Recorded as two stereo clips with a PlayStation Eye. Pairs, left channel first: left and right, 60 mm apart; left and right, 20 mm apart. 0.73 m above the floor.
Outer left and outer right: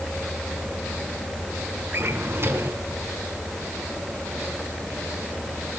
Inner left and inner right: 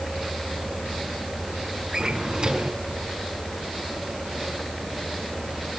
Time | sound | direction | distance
1.9 | a drawer | 45° right (ahead or behind) | 4.5 m